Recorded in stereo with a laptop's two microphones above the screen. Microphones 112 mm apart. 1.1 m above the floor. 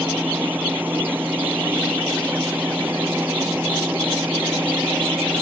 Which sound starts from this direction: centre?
A machine running, at 0.0 s.